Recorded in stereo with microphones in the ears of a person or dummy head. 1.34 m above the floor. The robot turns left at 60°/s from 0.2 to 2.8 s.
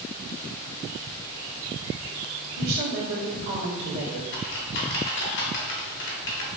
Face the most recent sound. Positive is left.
turn(degrees=65)  # may be behind; listen again after turning